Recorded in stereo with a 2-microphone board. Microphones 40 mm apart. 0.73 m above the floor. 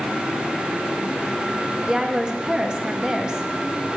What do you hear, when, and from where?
1.9 s a woman speaking: 20° right (ahead or behind), 0.9 m